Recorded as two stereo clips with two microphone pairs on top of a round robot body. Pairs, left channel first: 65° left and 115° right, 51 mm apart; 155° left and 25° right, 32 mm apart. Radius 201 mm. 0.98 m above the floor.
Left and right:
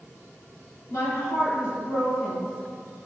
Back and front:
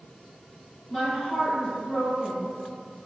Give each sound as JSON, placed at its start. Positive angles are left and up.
{"t": 0.9, "sound": "a woman speaking", "azimuth_deg": 85, "distance_m": 1.6}